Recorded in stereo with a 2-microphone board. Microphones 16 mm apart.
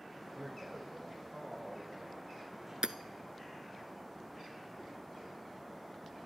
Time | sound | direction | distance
0.3 | a man speaking | 10° right (ahead or behind) | 7.5 m
2.8 | hammering | 60° right (ahead or behind) | 0.7 m